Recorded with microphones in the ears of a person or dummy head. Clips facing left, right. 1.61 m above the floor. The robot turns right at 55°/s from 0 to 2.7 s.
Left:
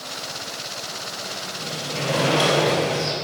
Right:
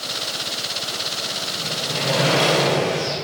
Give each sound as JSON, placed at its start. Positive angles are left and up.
{"t": 1.6, "sound": "a sliding door", "azimuth_deg": -35, "distance_m": 3.5}